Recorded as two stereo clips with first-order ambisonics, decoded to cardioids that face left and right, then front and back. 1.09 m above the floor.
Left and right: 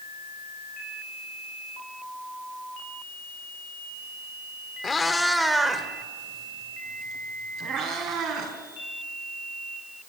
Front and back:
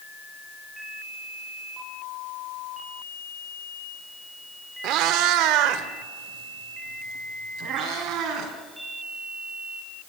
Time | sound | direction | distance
4.8 | a cat meowing | 155° left | 1.2 m